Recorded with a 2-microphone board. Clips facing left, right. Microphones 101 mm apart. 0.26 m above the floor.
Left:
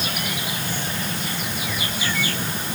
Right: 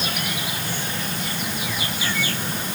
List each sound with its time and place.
Only background noise.